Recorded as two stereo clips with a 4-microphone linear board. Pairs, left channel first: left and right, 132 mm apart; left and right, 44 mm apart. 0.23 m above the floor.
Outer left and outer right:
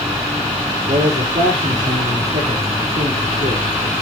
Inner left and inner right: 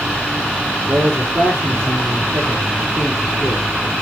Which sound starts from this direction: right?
A man speaking, at 0.9 s.